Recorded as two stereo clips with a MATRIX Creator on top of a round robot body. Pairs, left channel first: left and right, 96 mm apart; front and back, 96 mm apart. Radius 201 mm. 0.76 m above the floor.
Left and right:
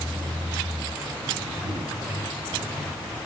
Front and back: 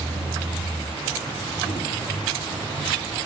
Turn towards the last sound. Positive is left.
turn(degrees=-90)